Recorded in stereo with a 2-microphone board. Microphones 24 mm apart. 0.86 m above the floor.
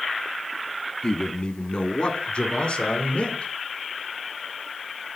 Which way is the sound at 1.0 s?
45° left (ahead or behind).